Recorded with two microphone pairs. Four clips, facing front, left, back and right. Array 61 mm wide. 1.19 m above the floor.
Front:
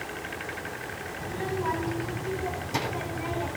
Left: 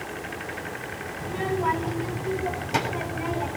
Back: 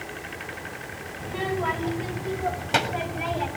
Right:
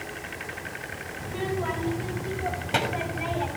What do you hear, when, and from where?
1.2 s a child speaking: 170° left, 5 m; by 3.5 s 165° right, 7 m